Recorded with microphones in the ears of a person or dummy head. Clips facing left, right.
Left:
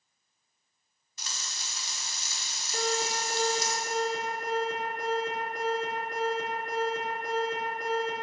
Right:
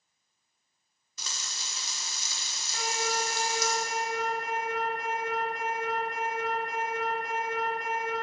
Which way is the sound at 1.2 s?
75° right (ahead or behind).